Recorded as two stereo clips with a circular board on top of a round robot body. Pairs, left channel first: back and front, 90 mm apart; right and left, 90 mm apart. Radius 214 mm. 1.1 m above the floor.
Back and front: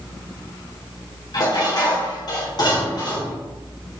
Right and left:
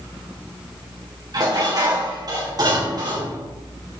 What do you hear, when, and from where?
1.3 s dishes clattering: 135° left, 3.5 m